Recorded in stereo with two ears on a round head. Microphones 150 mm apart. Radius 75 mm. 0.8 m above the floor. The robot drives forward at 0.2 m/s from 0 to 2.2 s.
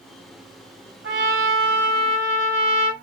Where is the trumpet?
85° right, 2.5 m; by 2.9 s 80° right, 2.5 m.